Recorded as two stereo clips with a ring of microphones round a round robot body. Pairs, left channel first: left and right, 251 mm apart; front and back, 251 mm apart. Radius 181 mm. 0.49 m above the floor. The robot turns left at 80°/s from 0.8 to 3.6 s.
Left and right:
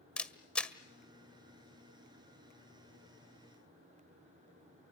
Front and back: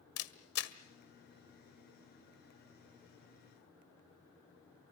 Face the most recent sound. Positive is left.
turn(degrees=140)